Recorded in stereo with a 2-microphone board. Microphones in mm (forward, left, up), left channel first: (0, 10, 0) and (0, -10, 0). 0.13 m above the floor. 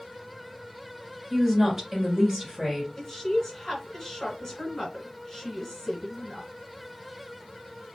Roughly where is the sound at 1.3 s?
Right.